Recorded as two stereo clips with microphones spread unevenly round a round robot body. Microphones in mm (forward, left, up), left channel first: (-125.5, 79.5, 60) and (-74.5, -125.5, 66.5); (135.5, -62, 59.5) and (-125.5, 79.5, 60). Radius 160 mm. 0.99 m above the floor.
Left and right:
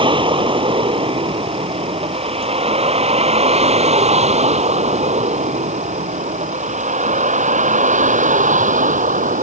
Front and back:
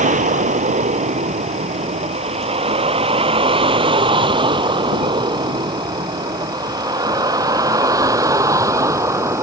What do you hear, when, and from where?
0.0 s a vehicle: 140° right; by 9.4 s 130° right